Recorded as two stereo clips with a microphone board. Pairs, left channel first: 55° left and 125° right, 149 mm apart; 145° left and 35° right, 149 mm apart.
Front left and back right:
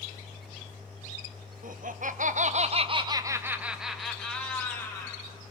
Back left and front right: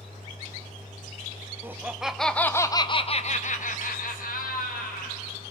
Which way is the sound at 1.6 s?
110° right.